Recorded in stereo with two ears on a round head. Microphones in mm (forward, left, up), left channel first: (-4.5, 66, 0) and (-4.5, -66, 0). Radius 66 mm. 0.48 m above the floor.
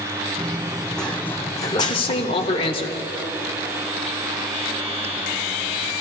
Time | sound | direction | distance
0.4 | running footsteps | 15° right (ahead or behind) | 1.2 m
1.7 | a man speaking | 35° left (ahead or behind) | 1.4 m